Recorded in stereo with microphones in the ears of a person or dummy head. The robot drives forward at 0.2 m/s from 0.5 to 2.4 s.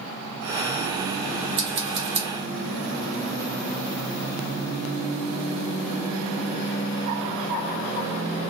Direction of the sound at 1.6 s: 35° right (ahead or behind).